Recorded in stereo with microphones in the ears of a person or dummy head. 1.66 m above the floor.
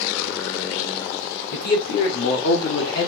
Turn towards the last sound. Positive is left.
turn(degrees=65)  # may be behind; listen again after turning